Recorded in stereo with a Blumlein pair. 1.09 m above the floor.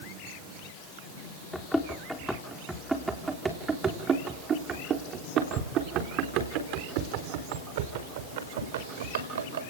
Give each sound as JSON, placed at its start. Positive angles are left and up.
{"t": 1.5, "sound": "running footsteps", "azimuth_deg": 10, "distance_m": 3.5}